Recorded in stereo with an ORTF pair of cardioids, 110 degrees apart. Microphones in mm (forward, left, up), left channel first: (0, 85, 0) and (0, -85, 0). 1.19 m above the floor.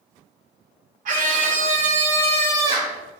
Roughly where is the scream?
Ahead right.